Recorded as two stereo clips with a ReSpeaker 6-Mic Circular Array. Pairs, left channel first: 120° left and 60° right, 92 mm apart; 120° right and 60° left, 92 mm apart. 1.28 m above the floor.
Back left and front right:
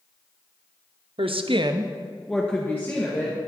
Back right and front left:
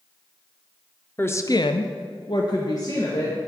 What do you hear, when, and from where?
1.2 s a woman speaking: 50° right, 0.8 m; by 3.4 s straight behind, 1.9 m